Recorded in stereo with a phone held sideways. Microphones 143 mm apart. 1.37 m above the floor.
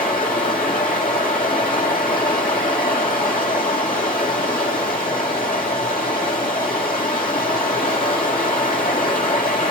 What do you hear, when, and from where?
0.0 s running water: 80° left, 4 m